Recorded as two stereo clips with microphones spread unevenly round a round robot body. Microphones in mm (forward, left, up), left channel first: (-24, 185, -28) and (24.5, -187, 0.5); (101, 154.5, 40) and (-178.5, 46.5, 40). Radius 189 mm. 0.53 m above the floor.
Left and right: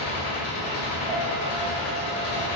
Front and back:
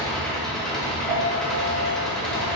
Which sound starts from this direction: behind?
A piano, at 1.1 s.